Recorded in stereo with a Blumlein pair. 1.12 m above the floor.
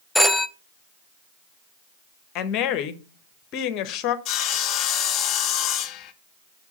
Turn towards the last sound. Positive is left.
turn(degrees=35)